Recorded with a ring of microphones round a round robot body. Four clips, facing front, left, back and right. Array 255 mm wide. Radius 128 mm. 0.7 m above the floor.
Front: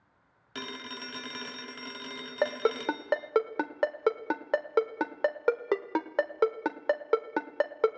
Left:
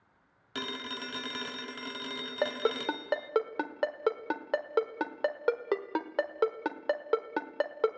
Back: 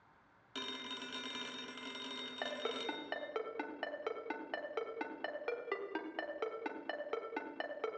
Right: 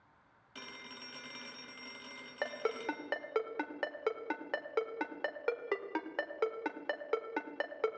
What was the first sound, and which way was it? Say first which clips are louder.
A phone ringing: left 12 dB, front 6 dB; 65° left.